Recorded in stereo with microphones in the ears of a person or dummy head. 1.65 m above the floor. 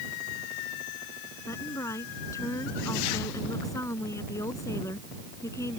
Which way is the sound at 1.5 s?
15° left (ahead or behind).